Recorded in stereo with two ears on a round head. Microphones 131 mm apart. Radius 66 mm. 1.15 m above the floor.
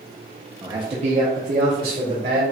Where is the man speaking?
20° right (ahead or behind), 0.5 m; by 2.4 s 70° right (ahead or behind), 1.7 m.